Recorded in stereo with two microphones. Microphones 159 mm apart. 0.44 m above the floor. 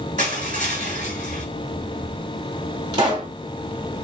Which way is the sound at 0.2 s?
55° right (ahead or behind).